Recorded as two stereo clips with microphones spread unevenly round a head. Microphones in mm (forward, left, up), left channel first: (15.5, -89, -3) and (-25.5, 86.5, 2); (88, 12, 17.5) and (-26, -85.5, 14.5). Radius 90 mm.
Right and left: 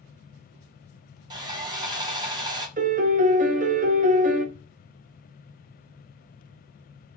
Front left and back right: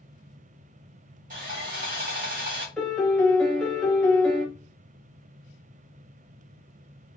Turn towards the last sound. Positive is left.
turn(degrees=125)